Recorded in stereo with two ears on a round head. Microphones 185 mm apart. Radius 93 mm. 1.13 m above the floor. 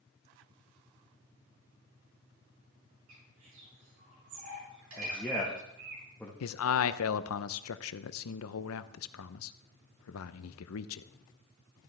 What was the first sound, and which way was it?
A bird, 80° right.